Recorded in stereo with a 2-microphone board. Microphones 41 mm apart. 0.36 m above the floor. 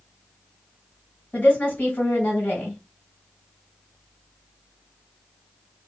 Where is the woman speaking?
50° left (ahead or behind), 2.0 m.